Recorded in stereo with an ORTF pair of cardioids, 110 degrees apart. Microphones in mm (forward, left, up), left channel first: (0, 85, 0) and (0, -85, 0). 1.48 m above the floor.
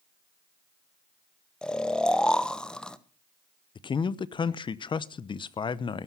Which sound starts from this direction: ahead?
Snoring, at 1.6 s.